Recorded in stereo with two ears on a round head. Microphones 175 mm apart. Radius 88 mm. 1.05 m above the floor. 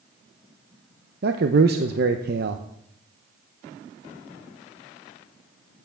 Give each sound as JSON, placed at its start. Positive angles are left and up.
{"t": 1.2, "sound": "a man speaking", "side_deg": -55, "distance_m": 0.7}